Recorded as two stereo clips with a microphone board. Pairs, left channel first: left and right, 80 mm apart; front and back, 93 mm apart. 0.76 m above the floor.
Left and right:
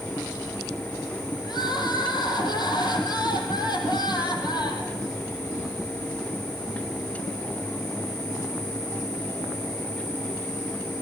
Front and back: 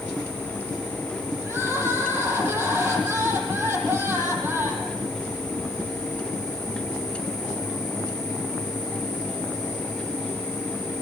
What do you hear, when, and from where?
1.4 s crying: 115° left, 5 m